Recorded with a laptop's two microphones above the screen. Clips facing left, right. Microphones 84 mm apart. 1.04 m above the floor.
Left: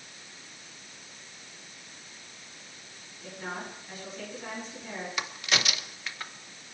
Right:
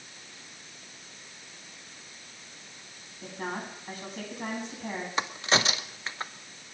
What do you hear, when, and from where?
3.2 s a woman speaking: 65° right (ahead or behind), 8 m
5.2 s a crack: 30° right (ahead or behind), 0.8 m